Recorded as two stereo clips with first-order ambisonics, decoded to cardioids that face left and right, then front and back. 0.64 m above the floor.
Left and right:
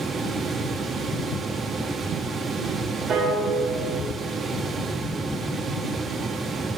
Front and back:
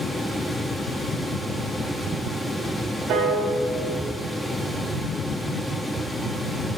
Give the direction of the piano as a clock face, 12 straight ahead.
5 o'clock.